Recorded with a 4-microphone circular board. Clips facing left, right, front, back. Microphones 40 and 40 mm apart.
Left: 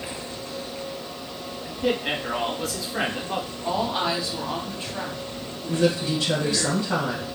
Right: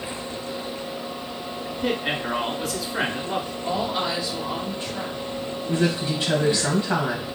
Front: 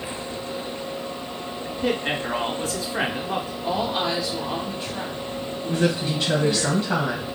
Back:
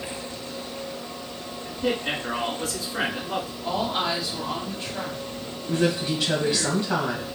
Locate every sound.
1.6 s a man speaking: 5° right, 1.3 m
3.6 s a woman speaking: 95° left, 1.4 m
5.7 s a woman speaking: 80° right, 1.4 m